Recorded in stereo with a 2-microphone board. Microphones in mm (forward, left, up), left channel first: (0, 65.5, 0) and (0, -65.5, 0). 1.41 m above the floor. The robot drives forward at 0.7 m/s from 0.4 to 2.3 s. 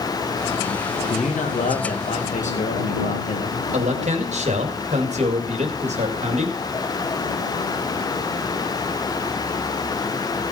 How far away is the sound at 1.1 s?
About 2 m.